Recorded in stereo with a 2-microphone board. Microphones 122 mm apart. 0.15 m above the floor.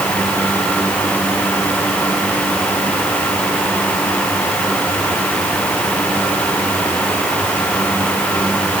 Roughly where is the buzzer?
No buzzer in this recording.